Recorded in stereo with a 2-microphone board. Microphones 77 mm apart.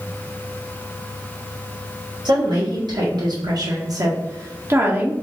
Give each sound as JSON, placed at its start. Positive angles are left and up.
{"t": 2.2, "sound": "a woman speaking", "side_deg": -70, "distance_m": 1.9}